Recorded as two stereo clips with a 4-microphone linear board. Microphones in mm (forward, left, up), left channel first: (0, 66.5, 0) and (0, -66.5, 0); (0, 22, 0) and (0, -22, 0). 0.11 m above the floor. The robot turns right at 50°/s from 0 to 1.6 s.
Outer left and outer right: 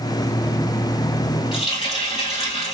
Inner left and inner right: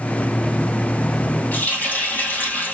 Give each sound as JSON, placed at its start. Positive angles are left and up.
{"t": 1.5, "sound": "a running tap", "side_deg": 50, "distance_m": 2.0}